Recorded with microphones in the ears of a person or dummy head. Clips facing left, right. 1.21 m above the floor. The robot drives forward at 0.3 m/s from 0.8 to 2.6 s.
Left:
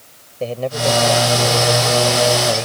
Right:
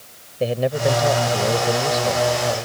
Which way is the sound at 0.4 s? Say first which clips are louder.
Right 1 dB; 15° right (ahead or behind).